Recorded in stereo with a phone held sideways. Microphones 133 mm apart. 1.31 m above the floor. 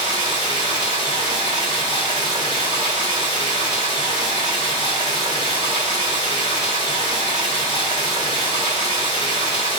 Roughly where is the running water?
Right.